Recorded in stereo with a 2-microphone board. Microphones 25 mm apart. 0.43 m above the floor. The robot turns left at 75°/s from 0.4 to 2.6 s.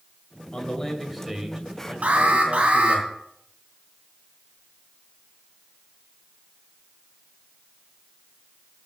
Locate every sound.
0.5 s a man speaking: 50° left, 2 m; by 3.0 s 110° right, 2 m
2.0 s an alarm: 75° right, 2.5 m; by 3.0 s 120° right, 2.5 m